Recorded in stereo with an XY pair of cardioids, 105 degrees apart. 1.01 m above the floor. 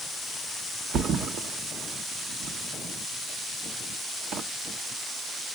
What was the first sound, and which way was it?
A thud, 65° right.